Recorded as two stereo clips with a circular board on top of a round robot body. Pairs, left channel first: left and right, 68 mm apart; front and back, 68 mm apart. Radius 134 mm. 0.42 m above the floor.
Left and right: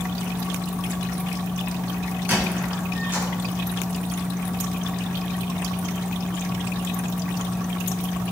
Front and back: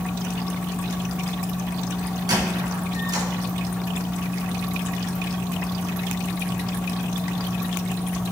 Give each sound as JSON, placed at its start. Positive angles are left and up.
{"t": 2.3, "sound": "a squeak", "azimuth_deg": -155, "distance_m": 2.5}